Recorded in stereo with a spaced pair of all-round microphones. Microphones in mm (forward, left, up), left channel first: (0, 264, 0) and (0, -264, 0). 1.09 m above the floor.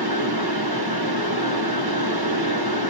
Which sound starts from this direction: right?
A fan, at 0.0 s.